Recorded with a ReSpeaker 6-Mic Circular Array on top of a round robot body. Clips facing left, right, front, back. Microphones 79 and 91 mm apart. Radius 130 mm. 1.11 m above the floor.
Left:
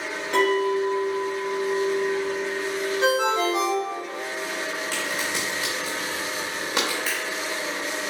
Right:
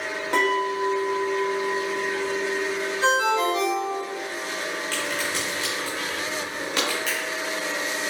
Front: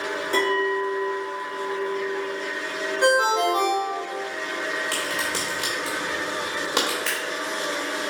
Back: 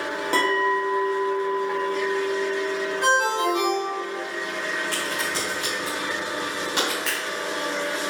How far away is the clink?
About 0.9 m.